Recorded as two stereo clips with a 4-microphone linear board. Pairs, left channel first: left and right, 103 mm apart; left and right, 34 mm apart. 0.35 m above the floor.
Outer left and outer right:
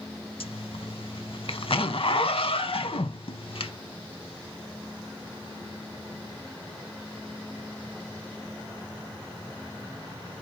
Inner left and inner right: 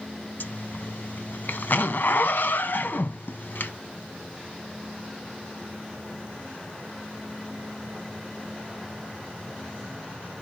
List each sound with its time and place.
0.4 s a zipper: 60° left (ahead or behind), 0.5 m